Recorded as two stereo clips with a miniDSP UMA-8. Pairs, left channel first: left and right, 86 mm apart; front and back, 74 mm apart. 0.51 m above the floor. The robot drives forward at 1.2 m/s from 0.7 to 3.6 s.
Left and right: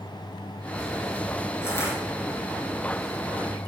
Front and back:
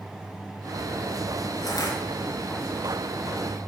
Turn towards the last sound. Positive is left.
turn(degrees=60)